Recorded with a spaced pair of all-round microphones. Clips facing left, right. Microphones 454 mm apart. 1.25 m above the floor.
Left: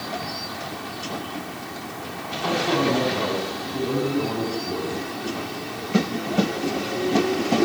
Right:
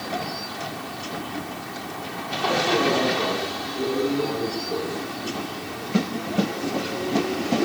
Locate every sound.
2.4 s a man speaking: 50° left (ahead or behind), 9 m